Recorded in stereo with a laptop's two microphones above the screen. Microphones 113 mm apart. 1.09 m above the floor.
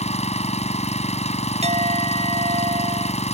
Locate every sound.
0.0 s an engine running: 75° left (ahead or behind)
1.6 s a clink: 65° right (ahead or behind)